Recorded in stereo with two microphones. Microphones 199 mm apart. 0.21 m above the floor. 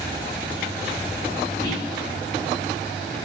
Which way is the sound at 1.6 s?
20° left (ahead or behind).